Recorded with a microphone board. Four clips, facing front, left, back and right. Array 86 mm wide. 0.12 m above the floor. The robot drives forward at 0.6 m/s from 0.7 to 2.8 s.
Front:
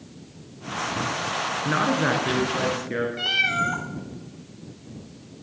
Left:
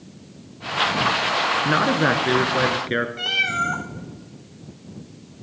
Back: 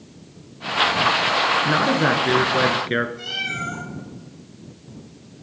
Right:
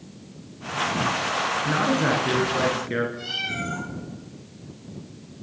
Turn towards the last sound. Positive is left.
turn(degrees=45)